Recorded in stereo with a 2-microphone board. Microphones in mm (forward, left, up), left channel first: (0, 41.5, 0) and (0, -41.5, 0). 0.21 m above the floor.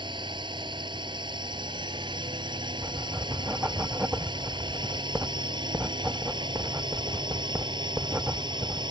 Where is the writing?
20° right (ahead or behind).